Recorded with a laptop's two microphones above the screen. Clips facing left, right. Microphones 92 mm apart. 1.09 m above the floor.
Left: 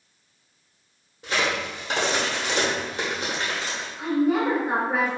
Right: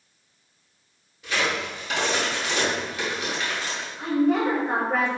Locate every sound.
1.2 s a crack: 35° left (ahead or behind), 0.8 m
4.0 s a woman speaking: 5° left (ahead or behind), 0.6 m